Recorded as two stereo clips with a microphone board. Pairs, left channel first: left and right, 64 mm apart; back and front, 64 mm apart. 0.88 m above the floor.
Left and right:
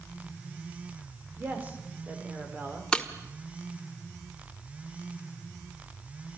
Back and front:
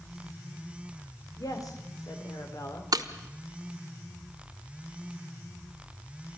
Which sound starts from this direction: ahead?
Breaking glass, at 2.9 s.